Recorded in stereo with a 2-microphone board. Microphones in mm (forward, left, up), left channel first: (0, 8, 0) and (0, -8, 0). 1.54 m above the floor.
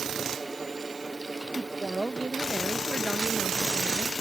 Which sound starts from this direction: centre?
A woman speaking, at 1.6 s.